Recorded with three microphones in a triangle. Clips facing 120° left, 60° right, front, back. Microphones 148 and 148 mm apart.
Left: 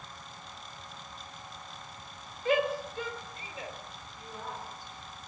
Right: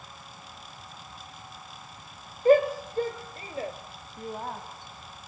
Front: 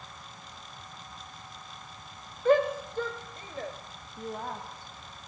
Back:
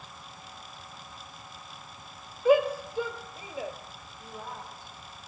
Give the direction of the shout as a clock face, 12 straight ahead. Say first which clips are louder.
Right 8 dB, back 1 dB; 3 o'clock.